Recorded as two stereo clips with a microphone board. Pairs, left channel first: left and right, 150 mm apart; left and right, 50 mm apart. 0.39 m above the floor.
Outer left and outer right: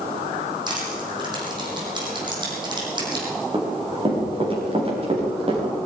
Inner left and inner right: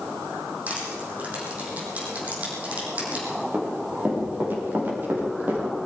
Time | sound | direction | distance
0.7 | crushing | 30° right (ahead or behind) | 5.5 m
3.5 | running footsteps | 30° right (ahead or behind) | 5 m